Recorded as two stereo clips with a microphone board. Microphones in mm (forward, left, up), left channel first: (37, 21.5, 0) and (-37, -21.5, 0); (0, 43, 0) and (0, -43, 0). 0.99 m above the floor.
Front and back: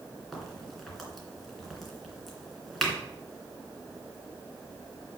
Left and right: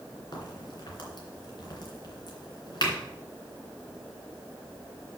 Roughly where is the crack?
Behind left.